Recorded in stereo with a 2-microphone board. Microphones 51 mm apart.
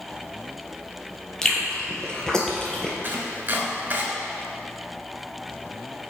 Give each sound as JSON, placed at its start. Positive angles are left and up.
{"t": 1.4, "sound": "chewing", "side_deg": 15, "distance_m": 1.5}
{"t": 3.0, "sound": "chopping", "side_deg": -40, "distance_m": 1.5}